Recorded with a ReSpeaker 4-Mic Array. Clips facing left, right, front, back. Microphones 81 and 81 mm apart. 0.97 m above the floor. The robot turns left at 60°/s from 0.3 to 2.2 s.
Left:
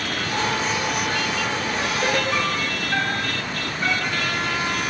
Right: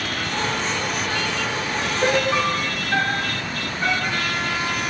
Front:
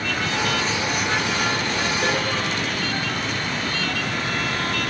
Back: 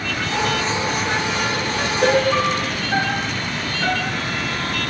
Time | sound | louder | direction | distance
2.0 | a piano | right 5 dB, back 7 dB | 155° right | ?